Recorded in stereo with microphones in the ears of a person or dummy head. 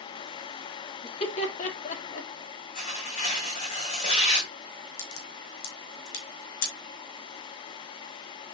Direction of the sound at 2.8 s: 50° left (ahead or behind).